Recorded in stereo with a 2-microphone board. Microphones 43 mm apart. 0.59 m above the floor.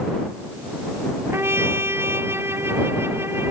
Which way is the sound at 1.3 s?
70° right (ahead or behind).